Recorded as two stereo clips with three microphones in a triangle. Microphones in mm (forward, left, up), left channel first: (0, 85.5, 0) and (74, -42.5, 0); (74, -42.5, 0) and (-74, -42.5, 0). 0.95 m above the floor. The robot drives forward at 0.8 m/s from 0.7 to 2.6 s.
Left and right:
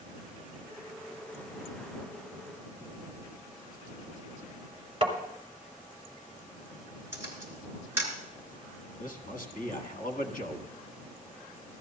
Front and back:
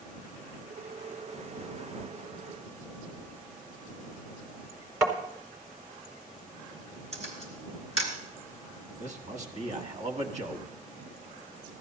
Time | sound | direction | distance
5.0 | tapping | 110° right | 1.8 m
7.1 | a camera shutter | 135° right | 3.5 m
9.0 | a man speaking | 145° left | 1.4 m